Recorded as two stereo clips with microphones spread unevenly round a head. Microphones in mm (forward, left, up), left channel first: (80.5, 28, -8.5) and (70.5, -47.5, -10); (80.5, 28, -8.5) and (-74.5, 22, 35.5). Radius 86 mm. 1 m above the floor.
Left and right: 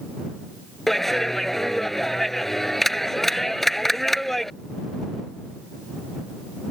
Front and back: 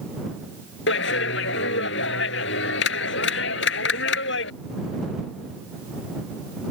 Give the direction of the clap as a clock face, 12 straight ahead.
12 o'clock.